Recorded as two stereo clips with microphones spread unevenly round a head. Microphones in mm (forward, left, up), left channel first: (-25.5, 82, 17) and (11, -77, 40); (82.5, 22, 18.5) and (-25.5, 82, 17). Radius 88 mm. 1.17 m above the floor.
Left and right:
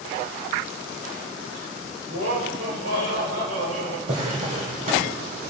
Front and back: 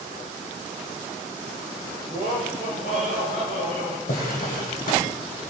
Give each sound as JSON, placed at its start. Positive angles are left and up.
{"t": 2.1, "sound": "laughter", "azimuth_deg": -75, "distance_m": 5.0}
{"t": 4.1, "sound": "a drawer", "azimuth_deg": -30, "distance_m": 2.5}